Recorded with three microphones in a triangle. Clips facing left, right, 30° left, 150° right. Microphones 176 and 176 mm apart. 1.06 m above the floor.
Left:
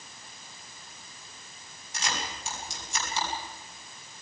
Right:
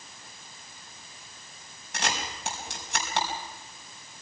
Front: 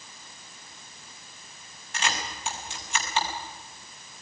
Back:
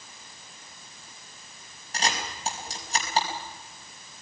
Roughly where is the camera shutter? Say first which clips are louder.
Right 3 dB, back 2 dB; right.